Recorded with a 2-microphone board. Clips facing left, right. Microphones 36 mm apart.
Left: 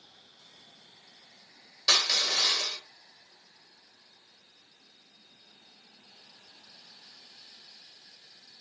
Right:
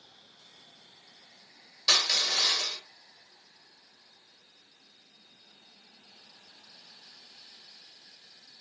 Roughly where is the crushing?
Centre.